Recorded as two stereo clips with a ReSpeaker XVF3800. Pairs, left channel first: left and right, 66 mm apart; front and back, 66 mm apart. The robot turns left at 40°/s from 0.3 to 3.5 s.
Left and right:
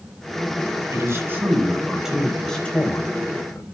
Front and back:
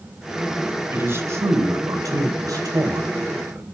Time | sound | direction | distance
0.9 | a man speaking | 125° right | 3 m